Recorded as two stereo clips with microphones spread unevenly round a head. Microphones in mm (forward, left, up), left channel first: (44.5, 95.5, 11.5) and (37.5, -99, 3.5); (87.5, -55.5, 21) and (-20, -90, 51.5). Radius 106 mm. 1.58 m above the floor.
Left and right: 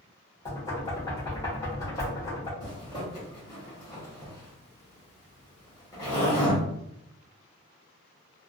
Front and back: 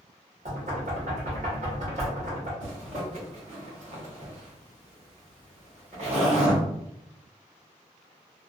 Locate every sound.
0.5 s knocking: 165° left, 0.8 m
2.6 s a zipper: 160° left, 1.0 m